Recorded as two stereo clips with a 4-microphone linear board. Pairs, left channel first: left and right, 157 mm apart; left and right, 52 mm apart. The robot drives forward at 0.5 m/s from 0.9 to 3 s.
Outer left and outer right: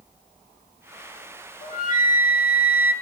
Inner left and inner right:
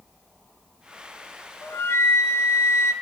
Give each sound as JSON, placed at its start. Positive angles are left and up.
{"t": 1.6, "sound": "a flute", "side_deg": 50, "distance_m": 0.9}